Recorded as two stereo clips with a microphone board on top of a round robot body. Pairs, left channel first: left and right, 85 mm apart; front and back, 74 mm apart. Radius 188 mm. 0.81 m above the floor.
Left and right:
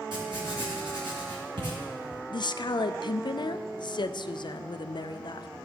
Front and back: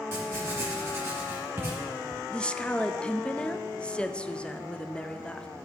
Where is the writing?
120° right, 1.5 m.